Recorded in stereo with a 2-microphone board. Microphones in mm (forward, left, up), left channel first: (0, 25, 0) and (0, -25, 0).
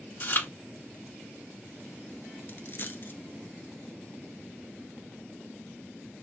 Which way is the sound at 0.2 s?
45° left (ahead or behind).